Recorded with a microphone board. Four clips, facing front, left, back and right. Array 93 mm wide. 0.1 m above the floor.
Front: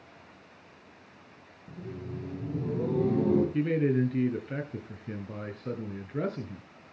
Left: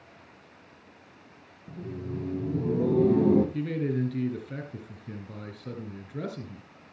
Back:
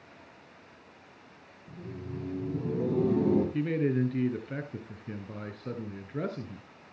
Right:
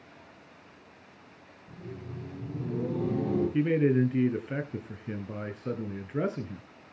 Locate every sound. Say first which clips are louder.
1.7 s laughter: left 6 dB, front 1 dB; 80° left, 3.5 m; by 3.4 s 105° left, 4.5 m
3.5 s a man speaking: right 5 dB, front 2 dB; 85° right, 1.5 m